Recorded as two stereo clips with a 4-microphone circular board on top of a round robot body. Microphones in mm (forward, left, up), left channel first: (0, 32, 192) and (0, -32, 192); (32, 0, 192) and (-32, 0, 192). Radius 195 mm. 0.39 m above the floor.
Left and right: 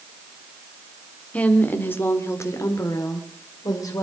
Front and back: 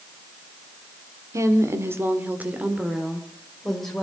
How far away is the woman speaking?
About 2 m.